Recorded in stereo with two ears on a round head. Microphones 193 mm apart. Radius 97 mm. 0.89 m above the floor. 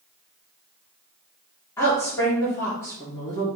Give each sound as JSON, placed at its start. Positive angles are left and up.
{"t": 1.8, "sound": "a woman speaking", "side_deg": 15, "distance_m": 2.5}